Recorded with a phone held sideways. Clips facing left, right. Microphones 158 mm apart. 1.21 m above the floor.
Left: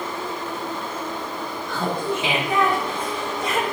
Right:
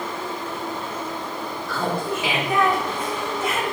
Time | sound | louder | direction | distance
1.7 | laughter | even | 20° left (ahead or behind) | 4 m